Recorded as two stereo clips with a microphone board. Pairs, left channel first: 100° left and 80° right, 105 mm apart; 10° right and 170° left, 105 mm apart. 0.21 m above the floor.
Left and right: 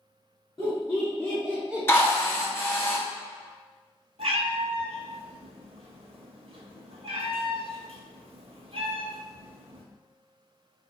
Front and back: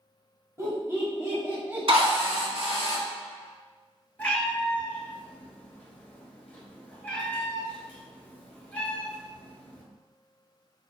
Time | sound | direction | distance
0.6 | laughter | 130° left | 1.4 m
1.9 | a drill | 160° left | 0.9 m
4.2 | a cat meowing | 85° right | 1.0 m